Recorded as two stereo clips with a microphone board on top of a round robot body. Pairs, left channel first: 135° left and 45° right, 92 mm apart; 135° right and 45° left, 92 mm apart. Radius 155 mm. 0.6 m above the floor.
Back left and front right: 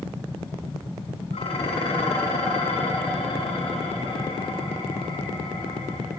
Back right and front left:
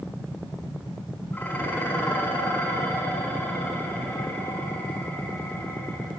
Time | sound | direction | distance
1.3 | dishes clattering | 155° left | 4.5 m